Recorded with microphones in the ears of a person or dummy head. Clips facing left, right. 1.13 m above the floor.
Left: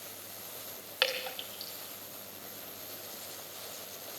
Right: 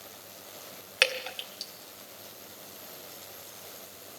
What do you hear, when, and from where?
1.0 s dripping: 35° right (ahead or behind), 1.5 m